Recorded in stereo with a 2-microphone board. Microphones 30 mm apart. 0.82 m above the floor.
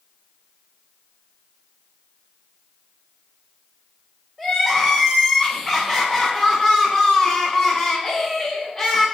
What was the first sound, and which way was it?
Crying, 15° left (ahead or behind).